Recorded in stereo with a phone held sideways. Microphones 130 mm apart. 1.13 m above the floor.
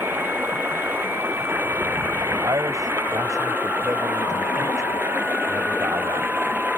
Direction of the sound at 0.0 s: 15° right (ahead or behind).